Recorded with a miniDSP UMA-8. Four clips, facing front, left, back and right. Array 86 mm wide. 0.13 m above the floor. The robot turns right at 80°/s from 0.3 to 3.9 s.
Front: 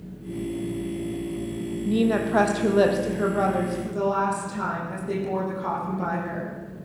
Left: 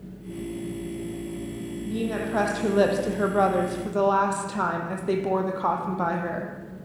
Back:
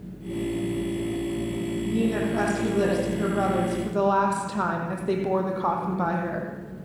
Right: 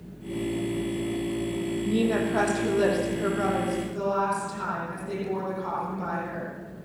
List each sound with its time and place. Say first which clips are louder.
1.9 s a woman speaking: right 3 dB, front 4 dB; 35° right, 4.5 m; by 6.5 s 130° left, 4.5 m